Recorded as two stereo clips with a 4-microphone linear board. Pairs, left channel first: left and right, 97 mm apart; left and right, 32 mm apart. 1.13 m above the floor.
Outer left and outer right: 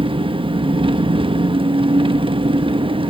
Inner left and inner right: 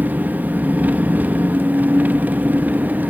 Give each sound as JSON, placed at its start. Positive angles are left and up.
{"t": 0.0, "sound": "an engine running", "side_deg": -65, "distance_m": 1.0}